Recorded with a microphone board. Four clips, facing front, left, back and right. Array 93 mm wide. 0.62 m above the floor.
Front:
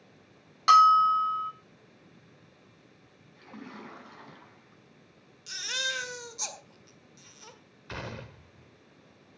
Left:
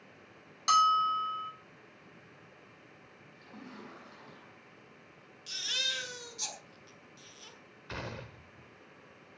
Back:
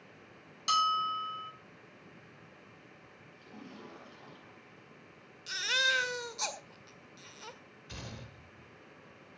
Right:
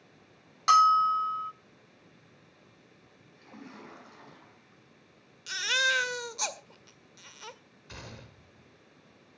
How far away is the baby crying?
About 1.7 m.